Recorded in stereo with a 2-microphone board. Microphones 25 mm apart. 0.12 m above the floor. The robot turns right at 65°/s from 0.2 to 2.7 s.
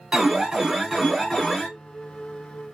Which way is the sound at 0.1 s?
65° right.